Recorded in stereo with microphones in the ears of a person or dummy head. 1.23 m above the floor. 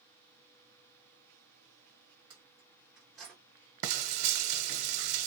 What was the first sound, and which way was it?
Keys jangling, 25° right (ahead or behind).